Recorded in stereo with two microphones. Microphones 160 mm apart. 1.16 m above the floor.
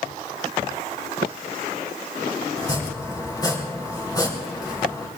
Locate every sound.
2.6 s chopping: 25° left (ahead or behind), 3.5 m